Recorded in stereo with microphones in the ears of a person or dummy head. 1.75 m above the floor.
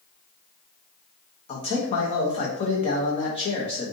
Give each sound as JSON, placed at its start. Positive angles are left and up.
{"t": 1.5, "sound": "a man speaking", "side_deg": 30, "distance_m": 1.1}